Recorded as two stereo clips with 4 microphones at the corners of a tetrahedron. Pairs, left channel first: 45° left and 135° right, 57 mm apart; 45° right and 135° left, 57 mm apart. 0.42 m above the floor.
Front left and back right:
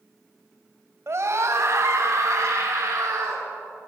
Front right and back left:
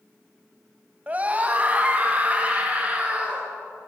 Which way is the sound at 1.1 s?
165° right.